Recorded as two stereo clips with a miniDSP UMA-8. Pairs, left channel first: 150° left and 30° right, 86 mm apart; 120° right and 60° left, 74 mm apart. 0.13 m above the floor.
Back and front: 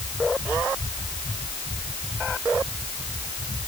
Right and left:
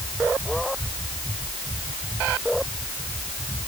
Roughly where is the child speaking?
I don't hear a child speaking.